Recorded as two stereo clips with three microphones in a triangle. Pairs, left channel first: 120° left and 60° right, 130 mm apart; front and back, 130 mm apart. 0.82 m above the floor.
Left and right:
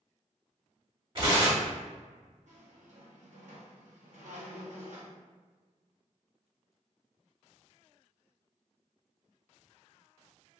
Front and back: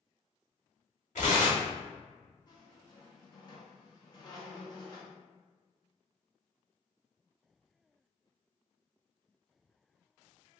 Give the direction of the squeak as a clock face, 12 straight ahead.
2 o'clock.